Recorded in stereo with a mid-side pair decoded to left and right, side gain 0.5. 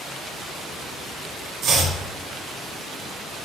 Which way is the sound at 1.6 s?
65° right.